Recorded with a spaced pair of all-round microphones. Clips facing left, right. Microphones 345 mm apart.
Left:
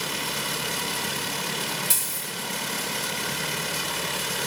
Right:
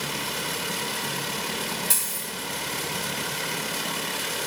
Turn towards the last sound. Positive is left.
turn(degrees=5)  # may be behind; listen again after turning